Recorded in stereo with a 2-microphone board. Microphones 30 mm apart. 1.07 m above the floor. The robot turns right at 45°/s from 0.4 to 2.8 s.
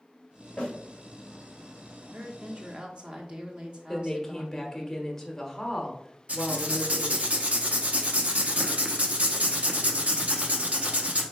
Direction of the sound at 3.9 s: 15° left (ahead or behind).